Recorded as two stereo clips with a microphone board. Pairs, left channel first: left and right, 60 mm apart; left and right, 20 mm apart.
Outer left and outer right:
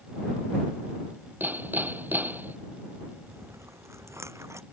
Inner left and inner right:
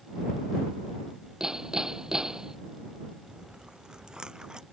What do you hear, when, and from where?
1.4 s hammering: 30° right (ahead or behind)
3.3 s chewing: 50° right (ahead or behind)